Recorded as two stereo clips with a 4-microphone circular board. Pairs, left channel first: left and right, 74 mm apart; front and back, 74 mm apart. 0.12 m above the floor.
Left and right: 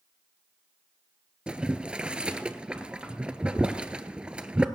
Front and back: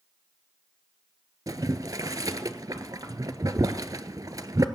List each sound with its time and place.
1.5 s boiling: 165° right, 0.7 m